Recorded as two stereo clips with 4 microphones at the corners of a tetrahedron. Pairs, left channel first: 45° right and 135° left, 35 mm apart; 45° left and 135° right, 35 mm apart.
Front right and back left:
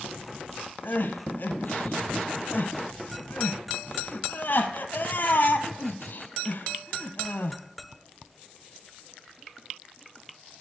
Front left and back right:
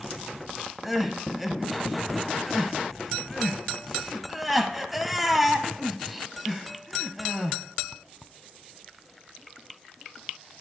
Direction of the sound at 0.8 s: 50° right.